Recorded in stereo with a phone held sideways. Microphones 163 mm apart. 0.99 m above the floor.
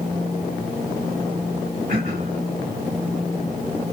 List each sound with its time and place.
1.9 s throat clearing: 60° right (ahead or behind), 2.5 m